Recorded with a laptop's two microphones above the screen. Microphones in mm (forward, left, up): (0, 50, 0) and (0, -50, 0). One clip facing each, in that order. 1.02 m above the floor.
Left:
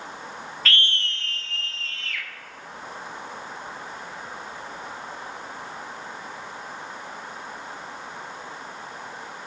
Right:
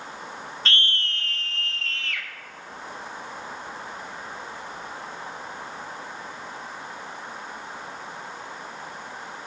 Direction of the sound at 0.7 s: 30° right (ahead or behind).